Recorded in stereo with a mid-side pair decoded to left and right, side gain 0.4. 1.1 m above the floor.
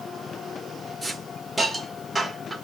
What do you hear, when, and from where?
1.0 s a hiss: 10° right, 1.0 m